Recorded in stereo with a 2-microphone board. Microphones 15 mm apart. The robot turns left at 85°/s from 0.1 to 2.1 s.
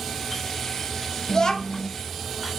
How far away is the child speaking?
About 0.7 m.